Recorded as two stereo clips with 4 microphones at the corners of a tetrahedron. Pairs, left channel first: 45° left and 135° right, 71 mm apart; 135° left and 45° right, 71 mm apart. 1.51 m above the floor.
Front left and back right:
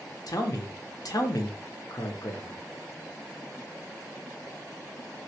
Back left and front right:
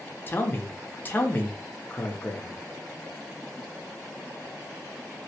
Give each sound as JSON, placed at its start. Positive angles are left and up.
{"t": 0.3, "sound": "a man speaking", "azimuth_deg": 75, "distance_m": 0.6}